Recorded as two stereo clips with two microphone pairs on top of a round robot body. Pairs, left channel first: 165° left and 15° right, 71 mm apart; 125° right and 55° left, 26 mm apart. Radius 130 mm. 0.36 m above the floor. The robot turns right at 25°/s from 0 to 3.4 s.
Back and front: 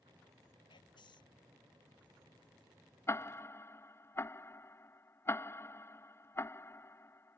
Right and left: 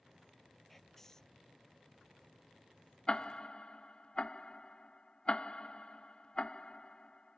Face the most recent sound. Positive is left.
turn(degrees=-170)